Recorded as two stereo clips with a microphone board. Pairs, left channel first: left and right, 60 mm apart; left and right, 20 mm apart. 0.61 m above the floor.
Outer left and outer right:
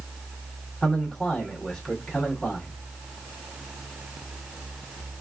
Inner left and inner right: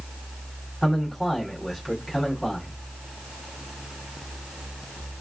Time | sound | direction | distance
0.8 | a man speaking | 10° left (ahead or behind) | 1.8 m